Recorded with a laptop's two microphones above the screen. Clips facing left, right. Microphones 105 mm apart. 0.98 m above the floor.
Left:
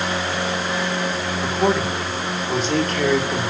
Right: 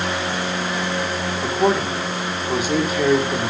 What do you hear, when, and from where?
1.4 s a man speaking: 10° right (ahead or behind), 3 m